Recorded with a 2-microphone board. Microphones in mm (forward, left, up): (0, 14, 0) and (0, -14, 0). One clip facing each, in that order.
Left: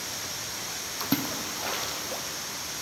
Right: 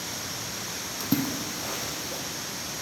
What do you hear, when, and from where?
1.0 s a splash: 25° left (ahead or behind), 0.8 m